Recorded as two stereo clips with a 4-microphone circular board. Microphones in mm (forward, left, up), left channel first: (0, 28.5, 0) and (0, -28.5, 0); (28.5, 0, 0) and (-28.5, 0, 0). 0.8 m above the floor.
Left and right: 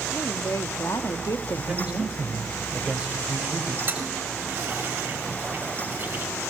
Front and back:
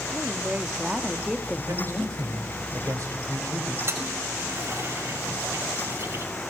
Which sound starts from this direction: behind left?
A woman speaking, at 0.1 s.